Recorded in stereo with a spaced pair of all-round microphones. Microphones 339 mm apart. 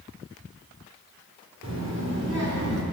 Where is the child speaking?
60° right (ahead or behind), 2.5 m; by 2.8 s 50° right (ahead or behind), 2 m.